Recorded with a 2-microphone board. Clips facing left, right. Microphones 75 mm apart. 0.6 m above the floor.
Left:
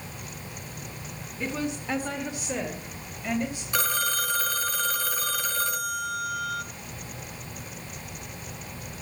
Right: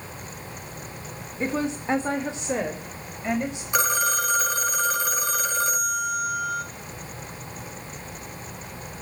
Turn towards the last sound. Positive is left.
turn(degrees=-20)  # may be behind; listen again after turning